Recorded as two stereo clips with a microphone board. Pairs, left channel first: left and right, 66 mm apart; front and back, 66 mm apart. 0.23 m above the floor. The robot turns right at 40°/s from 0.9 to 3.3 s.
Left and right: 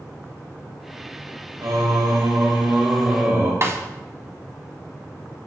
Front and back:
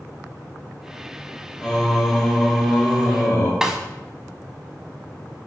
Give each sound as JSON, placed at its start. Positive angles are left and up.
{"t": 1.6, "sound": "singing", "azimuth_deg": -105, "distance_m": 3.5}
{"t": 3.6, "sound": "a snare drum", "azimuth_deg": -105, "distance_m": 1.3}